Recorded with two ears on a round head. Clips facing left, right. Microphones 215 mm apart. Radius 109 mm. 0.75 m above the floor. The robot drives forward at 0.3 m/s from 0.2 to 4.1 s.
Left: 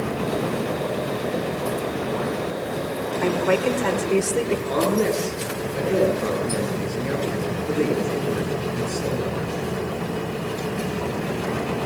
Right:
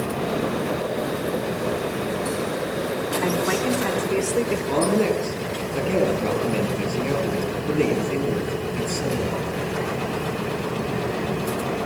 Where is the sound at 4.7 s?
20° right (ahead or behind), 7.5 m.